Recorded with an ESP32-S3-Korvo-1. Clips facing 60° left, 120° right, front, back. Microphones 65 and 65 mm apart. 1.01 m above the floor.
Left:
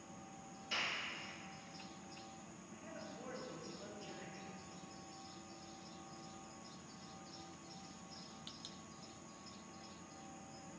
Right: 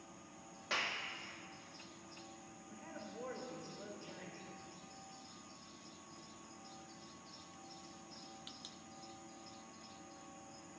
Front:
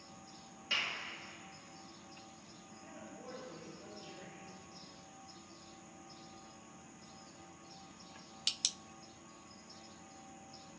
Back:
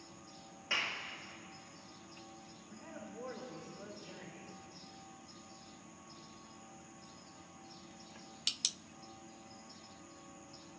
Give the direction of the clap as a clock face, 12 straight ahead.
4 o'clock.